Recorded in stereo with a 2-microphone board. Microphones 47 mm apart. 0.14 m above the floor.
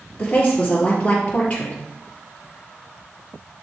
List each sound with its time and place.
0.2 s a woman speaking: 30° left (ahead or behind), 2.5 m